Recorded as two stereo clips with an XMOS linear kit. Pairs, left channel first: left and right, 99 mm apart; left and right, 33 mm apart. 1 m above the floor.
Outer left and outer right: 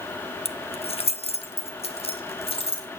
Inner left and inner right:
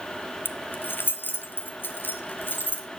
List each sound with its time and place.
0.5 s keys jangling: 85° left, 0.7 m